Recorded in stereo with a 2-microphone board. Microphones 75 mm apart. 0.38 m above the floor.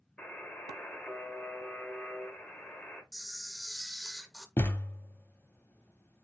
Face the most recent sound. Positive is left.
turn(degrees=30)  # may be behind; listen again after turning